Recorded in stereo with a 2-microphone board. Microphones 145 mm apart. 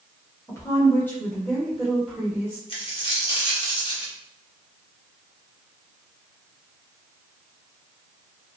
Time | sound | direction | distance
0.5 | a woman speaking | 20° left (ahead or behind) | 1.1 m
2.7 | a dropped coin | 40° left (ahead or behind) | 0.9 m